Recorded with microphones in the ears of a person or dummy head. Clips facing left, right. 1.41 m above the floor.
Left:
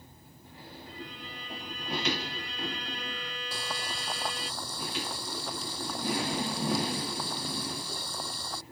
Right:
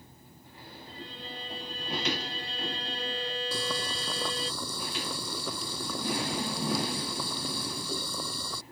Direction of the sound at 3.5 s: 80° right.